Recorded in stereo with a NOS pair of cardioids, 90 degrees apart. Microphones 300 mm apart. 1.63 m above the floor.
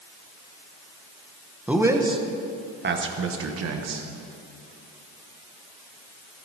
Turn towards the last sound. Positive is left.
turn(degrees=-60)